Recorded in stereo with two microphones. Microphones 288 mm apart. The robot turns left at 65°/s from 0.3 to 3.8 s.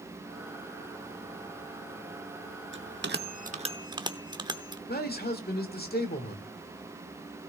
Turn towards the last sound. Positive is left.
turn(degrees=35)  # may be behind; listen again after turning